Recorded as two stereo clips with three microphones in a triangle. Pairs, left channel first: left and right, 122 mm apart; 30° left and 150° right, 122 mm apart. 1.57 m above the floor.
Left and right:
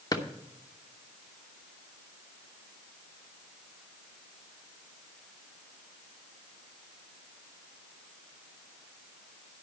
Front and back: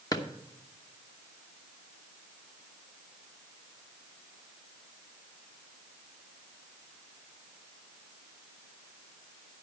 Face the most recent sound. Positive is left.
turn(degrees=65)